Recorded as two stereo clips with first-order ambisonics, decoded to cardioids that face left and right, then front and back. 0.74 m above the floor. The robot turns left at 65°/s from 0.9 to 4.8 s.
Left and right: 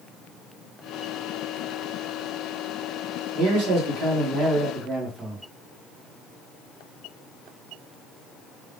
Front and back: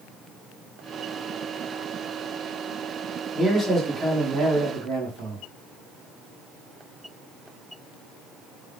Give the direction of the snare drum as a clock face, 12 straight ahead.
No snare drum in this recording.